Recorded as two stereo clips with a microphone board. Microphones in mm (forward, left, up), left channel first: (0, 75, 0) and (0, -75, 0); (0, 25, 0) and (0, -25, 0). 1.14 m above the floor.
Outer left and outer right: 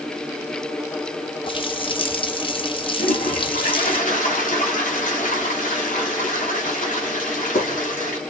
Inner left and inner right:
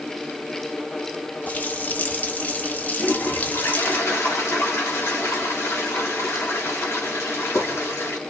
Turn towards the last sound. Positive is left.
turn(degrees=65)  # may be behind; listen again after turning